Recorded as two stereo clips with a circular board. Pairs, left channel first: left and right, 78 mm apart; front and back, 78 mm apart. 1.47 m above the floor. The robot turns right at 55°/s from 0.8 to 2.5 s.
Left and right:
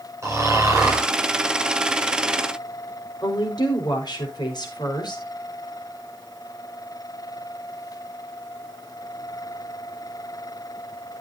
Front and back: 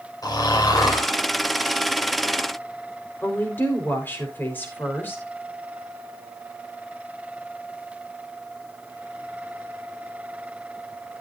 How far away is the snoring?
About 5.5 m.